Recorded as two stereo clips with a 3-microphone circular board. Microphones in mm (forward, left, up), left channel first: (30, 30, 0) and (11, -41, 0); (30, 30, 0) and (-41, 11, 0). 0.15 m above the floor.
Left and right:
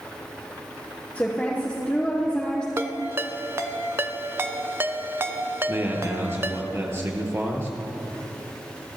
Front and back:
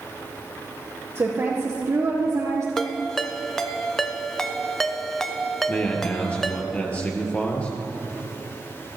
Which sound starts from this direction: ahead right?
A man speaking, at 5.7 s.